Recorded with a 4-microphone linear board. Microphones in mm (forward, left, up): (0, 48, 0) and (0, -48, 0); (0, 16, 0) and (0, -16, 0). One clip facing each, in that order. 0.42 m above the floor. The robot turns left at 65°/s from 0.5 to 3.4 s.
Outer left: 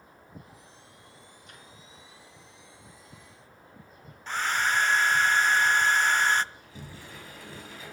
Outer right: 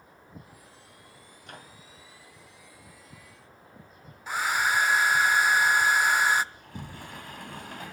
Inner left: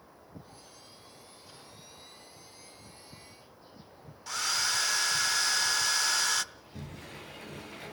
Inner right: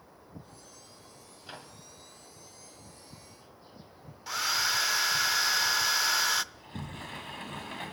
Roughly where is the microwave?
Right.